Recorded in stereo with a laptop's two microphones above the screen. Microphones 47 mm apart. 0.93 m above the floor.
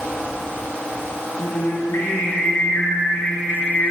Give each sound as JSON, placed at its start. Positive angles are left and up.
{"t": 1.4, "sound": "singing", "side_deg": 50, "distance_m": 1.1}